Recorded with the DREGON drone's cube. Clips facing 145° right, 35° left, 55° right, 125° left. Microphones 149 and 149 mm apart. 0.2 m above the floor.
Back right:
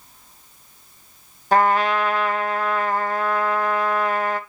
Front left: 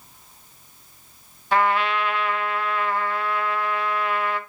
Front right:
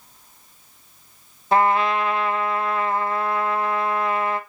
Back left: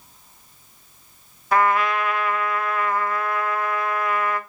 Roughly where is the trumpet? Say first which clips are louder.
Back right 3 dB, front right 1 dB; right.